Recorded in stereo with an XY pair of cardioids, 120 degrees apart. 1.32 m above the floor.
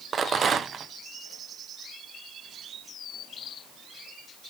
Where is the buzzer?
I don't hear a buzzer.